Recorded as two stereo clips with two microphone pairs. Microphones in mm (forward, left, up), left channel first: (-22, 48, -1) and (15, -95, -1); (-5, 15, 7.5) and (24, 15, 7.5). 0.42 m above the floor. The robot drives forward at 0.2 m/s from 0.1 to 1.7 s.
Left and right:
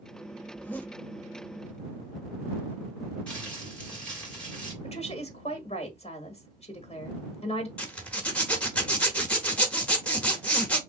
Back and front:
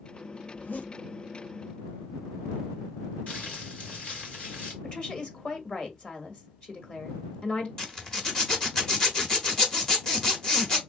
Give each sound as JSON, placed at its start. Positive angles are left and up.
{"t": 0.5, "sound": "a zipper", "azimuth_deg": -175, "distance_m": 0.5}
{"t": 3.3, "sound": "crumpling", "azimuth_deg": -175, "distance_m": 2.0}
{"t": 4.8, "sound": "a woman speaking", "azimuth_deg": 140, "distance_m": 1.3}
{"t": 7.8, "sound": "a zipper", "azimuth_deg": 175, "distance_m": 0.9}